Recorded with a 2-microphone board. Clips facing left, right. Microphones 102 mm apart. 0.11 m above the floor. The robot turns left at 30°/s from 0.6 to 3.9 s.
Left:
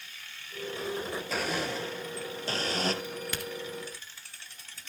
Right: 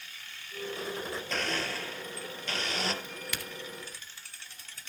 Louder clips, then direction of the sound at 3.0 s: Left 4 dB; 30° left (ahead or behind).